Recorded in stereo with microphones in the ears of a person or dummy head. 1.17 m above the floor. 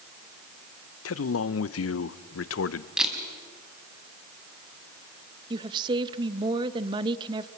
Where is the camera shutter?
5° right (ahead or behind), 5 m.